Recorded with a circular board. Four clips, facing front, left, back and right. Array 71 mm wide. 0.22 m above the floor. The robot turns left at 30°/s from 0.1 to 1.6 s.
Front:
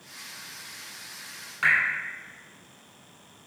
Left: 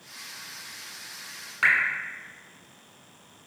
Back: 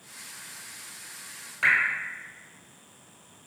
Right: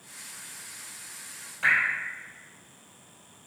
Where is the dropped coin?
No dropped coin in this recording.